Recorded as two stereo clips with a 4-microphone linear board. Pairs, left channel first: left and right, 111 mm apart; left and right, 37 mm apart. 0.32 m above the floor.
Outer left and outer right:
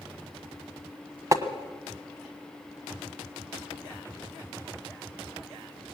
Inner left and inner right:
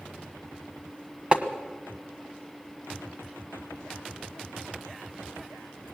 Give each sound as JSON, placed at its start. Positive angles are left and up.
{"t": 1.3, "sound": "tapping", "side_deg": -30, "distance_m": 1.4}